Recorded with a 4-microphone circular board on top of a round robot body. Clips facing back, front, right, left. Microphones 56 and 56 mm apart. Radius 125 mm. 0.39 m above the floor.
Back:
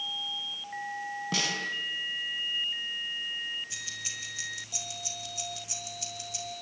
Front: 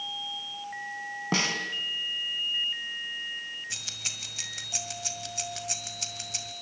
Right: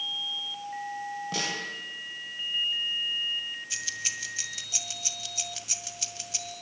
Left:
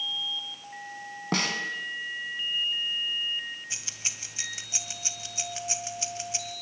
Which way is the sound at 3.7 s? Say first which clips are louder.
Even, right 4 dB; 25° left.